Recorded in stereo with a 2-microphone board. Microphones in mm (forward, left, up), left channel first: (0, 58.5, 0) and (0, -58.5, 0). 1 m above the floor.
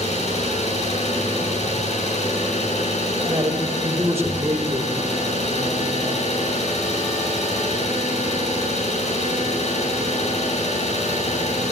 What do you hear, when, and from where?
0.0 s an engine running: 75° left (ahead or behind), 8 m
3.3 s a man speaking: 25° right (ahead or behind), 3.5 m